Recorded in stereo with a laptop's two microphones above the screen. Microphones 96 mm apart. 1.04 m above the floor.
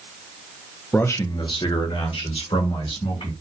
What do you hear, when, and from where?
0.9 s a man speaking: 20° left (ahead or behind), 0.5 m; by 3.3 s 80° left, 1.9 m